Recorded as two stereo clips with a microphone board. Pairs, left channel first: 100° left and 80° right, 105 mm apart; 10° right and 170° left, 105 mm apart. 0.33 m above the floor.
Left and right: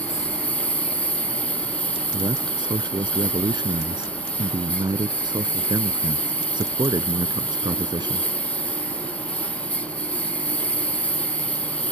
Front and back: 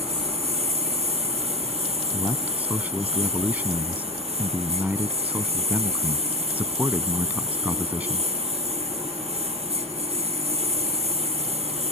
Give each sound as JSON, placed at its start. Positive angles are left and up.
{"t": 0.0, "sound": "a lawn mower", "azimuth_deg": 180}
{"t": 2.1, "sound": "a man speaking", "azimuth_deg": -115}